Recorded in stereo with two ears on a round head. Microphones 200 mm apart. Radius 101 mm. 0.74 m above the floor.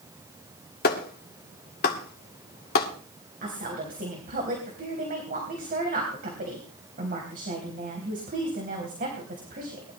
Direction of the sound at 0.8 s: 40° left (ahead or behind).